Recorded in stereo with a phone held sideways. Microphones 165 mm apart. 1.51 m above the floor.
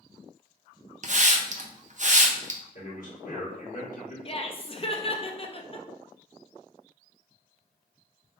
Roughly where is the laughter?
Left.